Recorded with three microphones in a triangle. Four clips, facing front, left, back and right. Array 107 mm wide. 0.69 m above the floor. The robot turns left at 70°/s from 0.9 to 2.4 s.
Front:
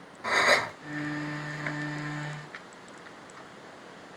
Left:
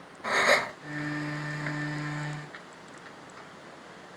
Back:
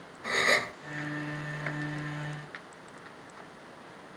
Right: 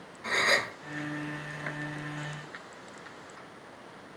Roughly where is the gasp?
Ahead left.